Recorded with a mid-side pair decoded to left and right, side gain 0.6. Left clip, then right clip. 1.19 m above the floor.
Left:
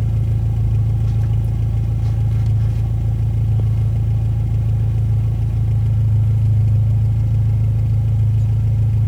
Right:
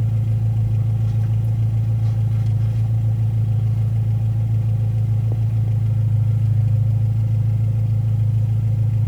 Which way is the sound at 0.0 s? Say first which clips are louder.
Left 1 dB; 30° left.